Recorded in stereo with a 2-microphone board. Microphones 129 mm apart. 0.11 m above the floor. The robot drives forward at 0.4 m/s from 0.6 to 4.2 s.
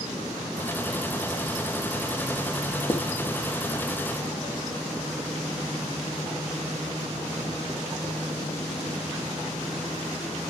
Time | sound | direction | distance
2.9 | writing | 25° left (ahead or behind) | 2.5 m